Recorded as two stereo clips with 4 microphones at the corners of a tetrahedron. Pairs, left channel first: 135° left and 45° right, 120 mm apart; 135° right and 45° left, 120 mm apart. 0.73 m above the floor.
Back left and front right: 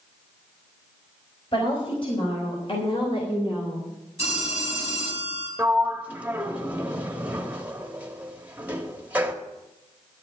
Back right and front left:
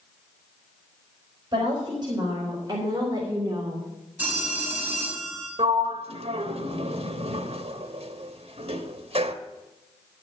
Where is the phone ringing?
120° left, 4 m.